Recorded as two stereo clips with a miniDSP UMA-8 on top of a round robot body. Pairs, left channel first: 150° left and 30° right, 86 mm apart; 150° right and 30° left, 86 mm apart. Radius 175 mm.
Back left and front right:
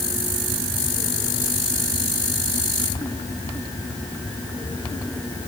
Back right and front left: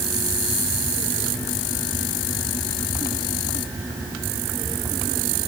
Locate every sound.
Only background noise.